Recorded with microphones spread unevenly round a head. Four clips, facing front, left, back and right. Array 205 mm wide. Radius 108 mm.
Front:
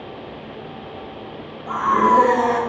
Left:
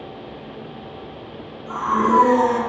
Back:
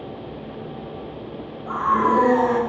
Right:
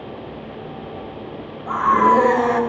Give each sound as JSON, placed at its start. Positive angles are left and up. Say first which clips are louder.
{"t": 1.7, "sound": "a scream", "louder": "right 4 dB, front 3 dB", "azimuth_deg": -45, "distance_m": 8.0}